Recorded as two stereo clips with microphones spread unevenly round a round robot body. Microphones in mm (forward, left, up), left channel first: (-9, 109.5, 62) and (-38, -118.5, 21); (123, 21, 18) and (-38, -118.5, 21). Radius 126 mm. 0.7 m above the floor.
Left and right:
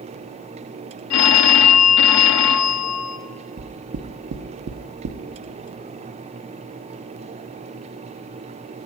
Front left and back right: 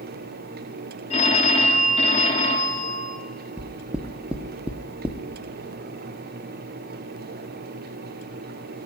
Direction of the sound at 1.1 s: 105° left.